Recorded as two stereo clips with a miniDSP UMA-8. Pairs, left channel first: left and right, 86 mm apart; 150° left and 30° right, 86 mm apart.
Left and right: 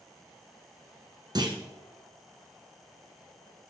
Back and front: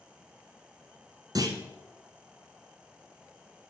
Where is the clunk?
70° right, 1.7 m.